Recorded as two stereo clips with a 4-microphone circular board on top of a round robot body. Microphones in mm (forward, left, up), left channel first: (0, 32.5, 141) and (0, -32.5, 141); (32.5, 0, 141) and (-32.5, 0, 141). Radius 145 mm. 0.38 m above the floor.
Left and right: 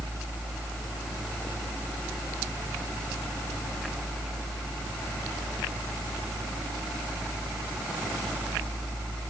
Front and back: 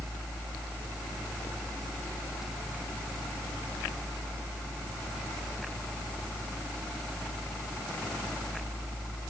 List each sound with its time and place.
Only background noise.